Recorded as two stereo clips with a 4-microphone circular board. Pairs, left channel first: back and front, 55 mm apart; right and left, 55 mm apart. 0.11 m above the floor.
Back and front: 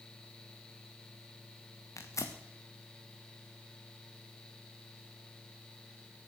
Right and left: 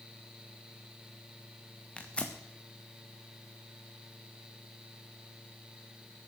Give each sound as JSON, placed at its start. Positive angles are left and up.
{"t": 2.0, "sound": "tearing paper", "azimuth_deg": -160, "distance_m": 1.5}